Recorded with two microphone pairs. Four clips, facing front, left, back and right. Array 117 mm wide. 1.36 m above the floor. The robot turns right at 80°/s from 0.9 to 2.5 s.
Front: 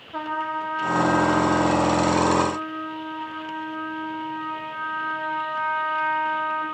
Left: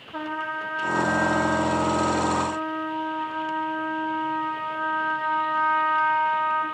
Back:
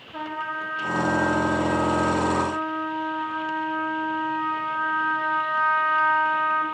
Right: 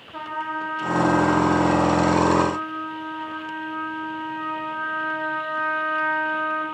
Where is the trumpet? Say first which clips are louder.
Right 1 dB, front 3 dB; 30° left, 1.0 m; by 6.6 s 155° left, 1.0 m.